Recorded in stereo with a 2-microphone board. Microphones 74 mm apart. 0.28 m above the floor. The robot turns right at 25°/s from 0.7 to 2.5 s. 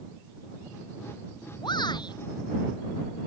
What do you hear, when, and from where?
1.6 s a shout: 85° left; by 2.2 s 75° left (ahead or behind)